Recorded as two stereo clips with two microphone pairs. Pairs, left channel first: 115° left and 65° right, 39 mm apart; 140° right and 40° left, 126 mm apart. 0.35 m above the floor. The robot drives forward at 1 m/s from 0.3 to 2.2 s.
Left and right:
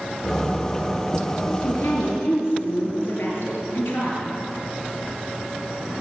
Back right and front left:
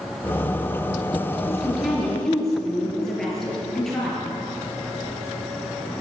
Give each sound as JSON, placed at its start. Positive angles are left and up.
{"t": 1.5, "sound": "a woman speaking", "azimuth_deg": 125, "distance_m": 6.0}